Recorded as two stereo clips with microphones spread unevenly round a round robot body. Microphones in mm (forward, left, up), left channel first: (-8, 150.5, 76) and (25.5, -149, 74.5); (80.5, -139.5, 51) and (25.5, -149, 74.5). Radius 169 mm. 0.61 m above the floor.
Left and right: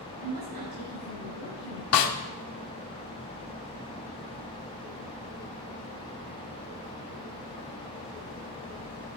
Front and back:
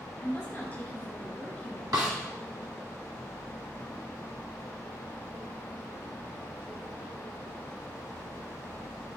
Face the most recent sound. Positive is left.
turn(degrees=135)